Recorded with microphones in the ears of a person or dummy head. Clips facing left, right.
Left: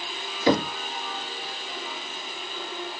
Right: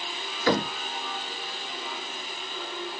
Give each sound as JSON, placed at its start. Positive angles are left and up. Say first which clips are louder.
{"t": 0.5, "sound": "knocking", "louder": "left 3 dB", "side_deg": 20, "distance_m": 1.6}